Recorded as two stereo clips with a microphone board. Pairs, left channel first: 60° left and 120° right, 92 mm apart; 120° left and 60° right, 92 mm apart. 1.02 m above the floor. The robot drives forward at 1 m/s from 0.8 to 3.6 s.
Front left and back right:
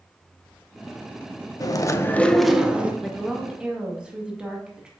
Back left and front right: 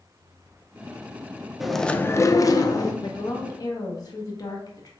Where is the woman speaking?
150° left, 1.0 m; by 4.9 s 160° left, 1.5 m.